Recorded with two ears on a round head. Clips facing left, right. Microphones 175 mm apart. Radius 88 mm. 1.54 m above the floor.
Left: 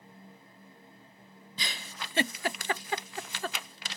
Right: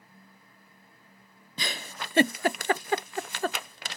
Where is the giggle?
40° right (ahead or behind).